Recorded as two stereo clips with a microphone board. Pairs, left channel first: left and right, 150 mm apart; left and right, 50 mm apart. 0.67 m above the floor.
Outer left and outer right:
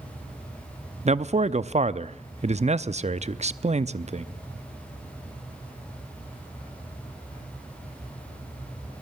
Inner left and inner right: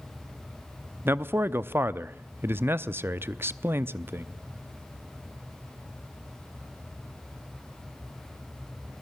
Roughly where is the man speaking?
Right.